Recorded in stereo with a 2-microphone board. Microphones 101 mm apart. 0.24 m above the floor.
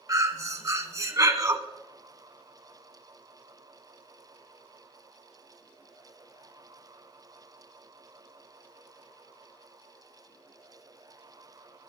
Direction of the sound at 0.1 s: 35° right (ahead or behind).